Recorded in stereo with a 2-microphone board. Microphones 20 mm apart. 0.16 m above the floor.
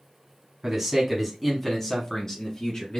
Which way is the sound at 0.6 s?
15° right (ahead or behind).